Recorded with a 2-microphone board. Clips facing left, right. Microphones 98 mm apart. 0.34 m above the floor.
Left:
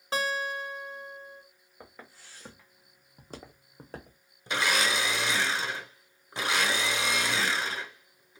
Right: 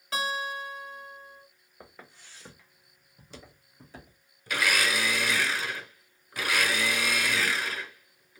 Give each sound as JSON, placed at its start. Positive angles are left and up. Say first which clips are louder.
{"t": 0.1, "sound": "a guitar", "louder": "left 1 dB", "side_deg": 35, "distance_m": 1.8}
{"t": 1.8, "sound": "footsteps", "louder": "even", "side_deg": 0, "distance_m": 1.3}
{"t": 4.5, "sound": "a blender", "louder": "even", "side_deg": 25, "distance_m": 0.6}